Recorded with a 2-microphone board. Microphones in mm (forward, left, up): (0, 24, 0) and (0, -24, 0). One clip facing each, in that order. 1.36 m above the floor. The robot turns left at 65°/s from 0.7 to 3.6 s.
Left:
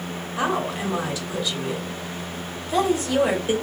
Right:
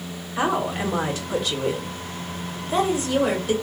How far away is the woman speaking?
About 1.3 m.